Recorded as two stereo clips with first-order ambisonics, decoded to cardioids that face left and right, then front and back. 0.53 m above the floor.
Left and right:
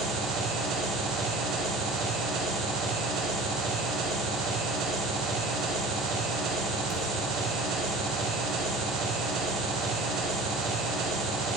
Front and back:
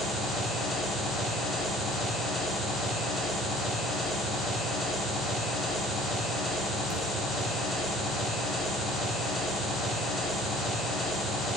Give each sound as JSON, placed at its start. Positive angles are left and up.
{"t": 0.0, "sound": "an engine running", "azimuth_deg": -75, "distance_m": 1.3}